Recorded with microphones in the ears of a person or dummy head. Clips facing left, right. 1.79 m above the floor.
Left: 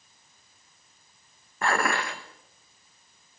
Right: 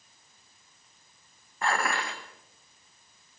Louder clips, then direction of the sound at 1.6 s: Left 3 dB; 50° left (ahead or behind).